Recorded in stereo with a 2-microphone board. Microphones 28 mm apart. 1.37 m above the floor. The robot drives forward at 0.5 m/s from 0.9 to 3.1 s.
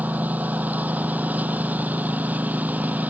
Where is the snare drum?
No snare drum in this recording.